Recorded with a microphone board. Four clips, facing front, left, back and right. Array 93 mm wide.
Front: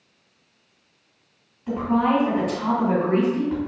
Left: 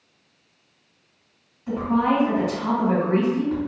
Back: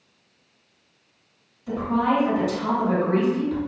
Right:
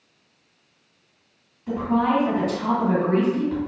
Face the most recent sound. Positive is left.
turn(degrees=20)